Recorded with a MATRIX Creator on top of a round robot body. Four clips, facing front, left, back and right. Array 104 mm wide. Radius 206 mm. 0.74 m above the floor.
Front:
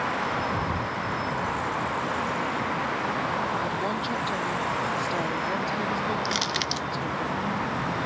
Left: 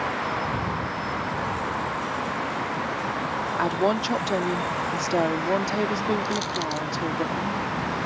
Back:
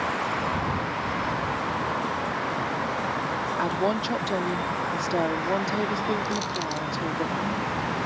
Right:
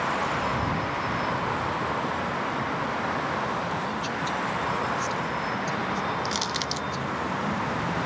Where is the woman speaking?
115° left.